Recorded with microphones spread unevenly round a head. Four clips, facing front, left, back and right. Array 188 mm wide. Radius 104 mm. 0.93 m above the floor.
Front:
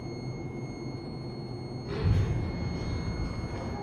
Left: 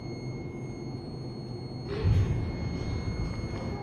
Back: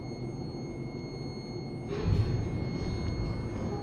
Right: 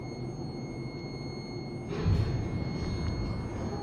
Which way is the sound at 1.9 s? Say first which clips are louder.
Left 2 dB, front 1 dB; 60° left.